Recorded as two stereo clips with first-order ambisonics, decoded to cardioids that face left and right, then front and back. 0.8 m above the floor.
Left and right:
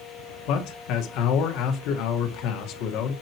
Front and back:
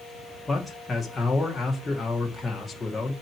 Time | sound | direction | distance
0.5 | a man speaking | 75° left | 1.6 m